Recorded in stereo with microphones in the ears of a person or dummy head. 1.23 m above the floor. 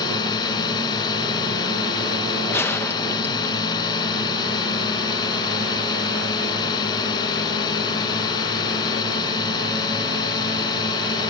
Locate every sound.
0.0 s a drone: 20° left (ahead or behind)
2.5 s a gunshot: 10° left (ahead or behind)